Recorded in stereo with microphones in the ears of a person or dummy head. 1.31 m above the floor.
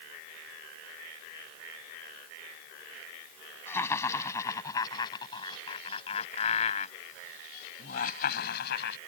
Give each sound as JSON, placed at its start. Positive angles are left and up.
{"t": 3.7, "sound": "laughter", "side_deg": 15}